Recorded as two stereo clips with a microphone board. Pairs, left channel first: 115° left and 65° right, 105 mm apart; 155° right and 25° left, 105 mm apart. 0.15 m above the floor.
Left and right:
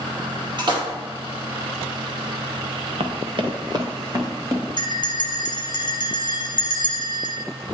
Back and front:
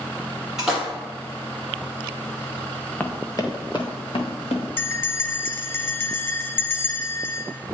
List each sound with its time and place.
0.6 s a splash: 60° right, 2 m
3.0 s running footsteps: 85° right, 1.2 m; by 4.6 s 130° right, 2.5 m
4.8 s a bell: 145° left, 1.3 m